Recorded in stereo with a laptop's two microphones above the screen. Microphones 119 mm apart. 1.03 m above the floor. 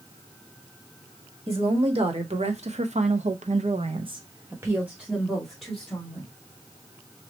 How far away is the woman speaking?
About 1.3 m.